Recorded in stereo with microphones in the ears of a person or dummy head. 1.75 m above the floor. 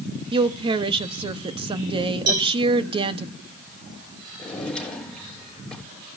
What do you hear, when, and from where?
0.3 s a woman speaking: 25° right (ahead or behind), 1.1 m
2.3 s a cowbell: 55° right (ahead or behind), 4.5 m
4.4 s a drawer: 5° left (ahead or behind), 6.5 m